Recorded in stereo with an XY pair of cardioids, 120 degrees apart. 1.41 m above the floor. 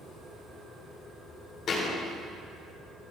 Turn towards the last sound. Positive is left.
turn(degrees=45)